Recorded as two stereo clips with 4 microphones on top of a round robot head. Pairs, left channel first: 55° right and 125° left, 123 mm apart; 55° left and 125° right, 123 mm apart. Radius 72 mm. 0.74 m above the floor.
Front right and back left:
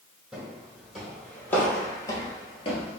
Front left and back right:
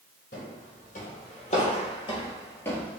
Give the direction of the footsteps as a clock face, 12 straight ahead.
11 o'clock.